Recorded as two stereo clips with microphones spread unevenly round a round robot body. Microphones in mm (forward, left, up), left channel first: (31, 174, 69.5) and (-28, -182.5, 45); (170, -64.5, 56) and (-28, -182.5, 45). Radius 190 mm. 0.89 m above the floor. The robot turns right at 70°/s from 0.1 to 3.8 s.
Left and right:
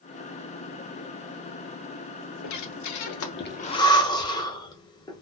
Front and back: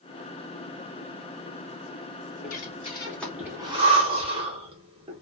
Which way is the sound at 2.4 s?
65° left.